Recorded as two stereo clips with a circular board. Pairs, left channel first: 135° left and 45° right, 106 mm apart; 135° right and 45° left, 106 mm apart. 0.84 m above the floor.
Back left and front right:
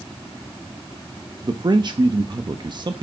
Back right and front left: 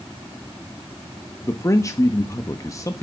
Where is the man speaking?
80° right, 0.9 m.